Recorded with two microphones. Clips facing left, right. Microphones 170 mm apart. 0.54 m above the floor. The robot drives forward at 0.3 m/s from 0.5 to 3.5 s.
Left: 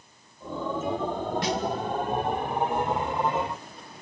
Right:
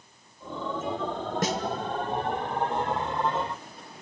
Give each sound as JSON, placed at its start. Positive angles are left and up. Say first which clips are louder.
{"t": 1.4, "sound": "a snare drum", "louder": "right 2 dB", "side_deg": -45, "distance_m": 1.4}